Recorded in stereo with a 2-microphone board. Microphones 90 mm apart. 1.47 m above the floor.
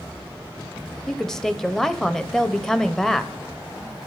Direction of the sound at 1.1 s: 5° left (ahead or behind).